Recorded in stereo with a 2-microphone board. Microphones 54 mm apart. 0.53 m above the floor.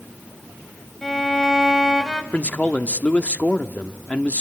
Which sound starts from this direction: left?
A man speaking, at 2.3 s.